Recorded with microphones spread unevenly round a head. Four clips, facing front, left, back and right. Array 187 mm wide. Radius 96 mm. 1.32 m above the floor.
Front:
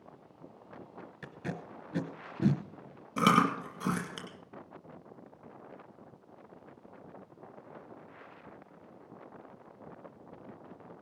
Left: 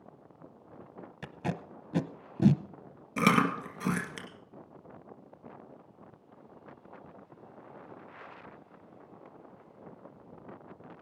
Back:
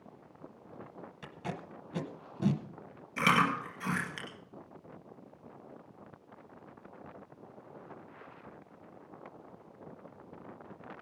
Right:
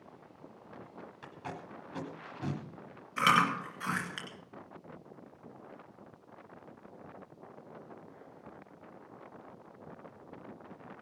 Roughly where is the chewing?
Ahead left.